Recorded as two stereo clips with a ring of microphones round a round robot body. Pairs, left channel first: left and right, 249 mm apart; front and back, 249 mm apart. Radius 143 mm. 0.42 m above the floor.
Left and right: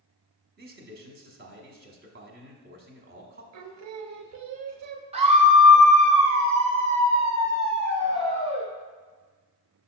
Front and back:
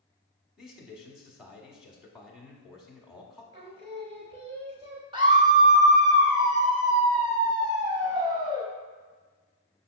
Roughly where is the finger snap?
I don't hear a finger snap.